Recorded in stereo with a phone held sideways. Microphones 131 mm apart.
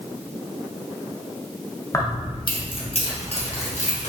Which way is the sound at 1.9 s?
25° left (ahead or behind).